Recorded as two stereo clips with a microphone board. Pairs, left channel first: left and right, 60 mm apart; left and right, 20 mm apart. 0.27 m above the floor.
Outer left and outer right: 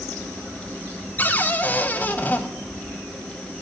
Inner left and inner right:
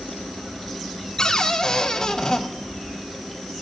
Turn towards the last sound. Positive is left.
turn(degrees=30)  # may be behind; listen again after turning